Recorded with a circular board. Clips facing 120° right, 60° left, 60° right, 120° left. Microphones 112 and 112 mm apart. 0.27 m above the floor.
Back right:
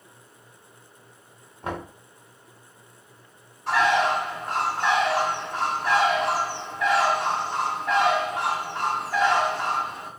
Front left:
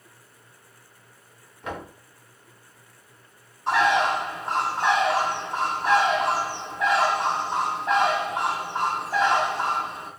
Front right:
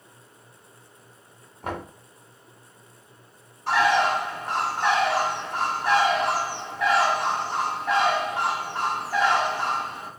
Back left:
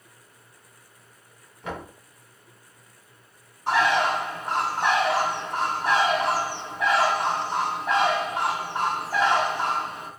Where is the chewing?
No chewing in this recording.